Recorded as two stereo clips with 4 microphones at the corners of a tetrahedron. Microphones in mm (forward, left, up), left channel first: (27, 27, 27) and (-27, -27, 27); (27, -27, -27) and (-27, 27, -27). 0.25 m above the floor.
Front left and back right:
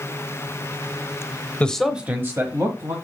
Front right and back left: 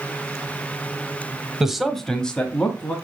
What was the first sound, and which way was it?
A man speaking, 70° left.